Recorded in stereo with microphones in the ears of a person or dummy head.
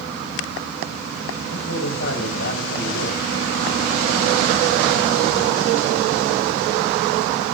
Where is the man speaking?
65° left (ahead or behind), 7.5 m.